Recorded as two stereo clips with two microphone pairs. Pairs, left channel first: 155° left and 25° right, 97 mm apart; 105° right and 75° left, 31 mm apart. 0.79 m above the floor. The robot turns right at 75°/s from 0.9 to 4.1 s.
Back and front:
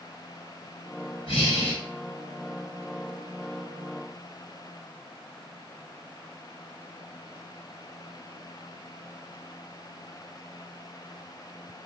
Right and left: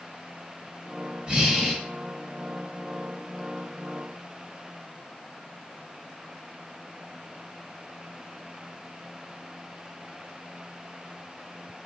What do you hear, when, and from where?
1.3 s breathing: 140° left, 0.9 m; by 1.8 s straight behind, 0.9 m